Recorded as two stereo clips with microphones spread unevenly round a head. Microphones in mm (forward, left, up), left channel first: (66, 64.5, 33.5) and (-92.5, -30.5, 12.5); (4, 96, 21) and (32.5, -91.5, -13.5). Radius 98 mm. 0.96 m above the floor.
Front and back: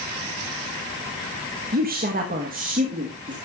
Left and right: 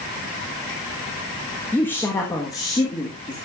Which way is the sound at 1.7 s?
175° right.